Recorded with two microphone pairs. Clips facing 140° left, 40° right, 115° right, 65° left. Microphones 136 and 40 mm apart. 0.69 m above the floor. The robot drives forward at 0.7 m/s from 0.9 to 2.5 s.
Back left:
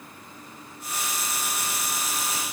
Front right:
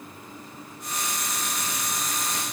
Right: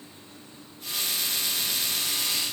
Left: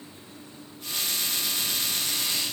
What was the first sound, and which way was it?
Only background noise.